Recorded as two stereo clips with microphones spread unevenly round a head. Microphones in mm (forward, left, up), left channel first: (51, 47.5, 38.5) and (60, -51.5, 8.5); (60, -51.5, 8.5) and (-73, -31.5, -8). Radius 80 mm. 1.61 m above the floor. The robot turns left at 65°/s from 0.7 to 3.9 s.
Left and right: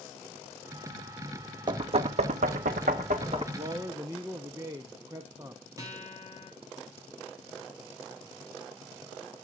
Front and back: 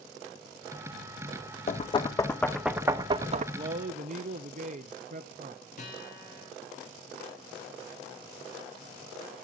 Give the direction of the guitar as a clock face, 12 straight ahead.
1 o'clock.